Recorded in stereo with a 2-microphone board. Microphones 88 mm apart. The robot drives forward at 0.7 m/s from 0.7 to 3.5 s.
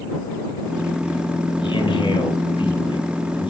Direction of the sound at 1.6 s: 65° left (ahead or behind).